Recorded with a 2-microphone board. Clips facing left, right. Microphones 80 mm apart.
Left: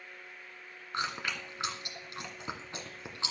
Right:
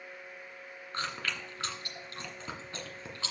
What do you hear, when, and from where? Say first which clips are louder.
0.9 s chewing: left 2 dB; 20° left (ahead or behind), 2 m